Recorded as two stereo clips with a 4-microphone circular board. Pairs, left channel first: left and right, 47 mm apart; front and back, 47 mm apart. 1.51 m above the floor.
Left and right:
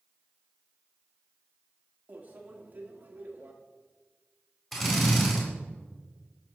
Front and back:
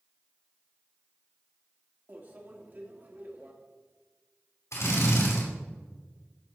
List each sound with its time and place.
2.1 s a microwave: 135° right, 1.6 m
4.7 s a drill: 10° left, 4 m